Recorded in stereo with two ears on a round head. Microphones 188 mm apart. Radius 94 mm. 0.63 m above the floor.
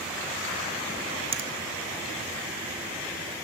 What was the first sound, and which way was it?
A finger snap, 30° right (ahead or behind).